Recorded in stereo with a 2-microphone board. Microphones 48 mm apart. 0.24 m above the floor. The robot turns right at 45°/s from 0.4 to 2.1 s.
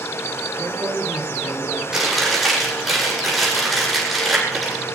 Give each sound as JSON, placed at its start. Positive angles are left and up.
{"t": 0.6, "sound": "a man speaking", "azimuth_deg": -70, "distance_m": 6.0}
{"t": 1.9, "sound": "chewing", "side_deg": -10, "distance_m": 9.0}